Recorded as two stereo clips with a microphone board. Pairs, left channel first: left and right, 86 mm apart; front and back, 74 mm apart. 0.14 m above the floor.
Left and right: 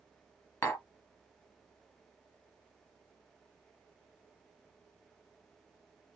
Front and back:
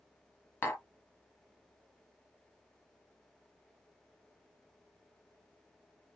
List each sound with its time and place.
0.6 s tapping: 50° left, 1.5 m